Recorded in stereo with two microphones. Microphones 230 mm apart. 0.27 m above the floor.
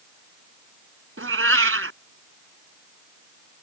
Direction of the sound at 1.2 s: 70° right (ahead or behind).